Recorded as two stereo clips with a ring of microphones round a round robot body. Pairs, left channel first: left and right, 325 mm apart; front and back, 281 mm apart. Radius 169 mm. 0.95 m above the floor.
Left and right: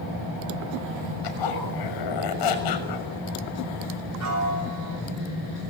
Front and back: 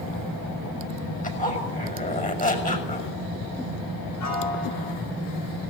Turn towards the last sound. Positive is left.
turn(degrees=-45)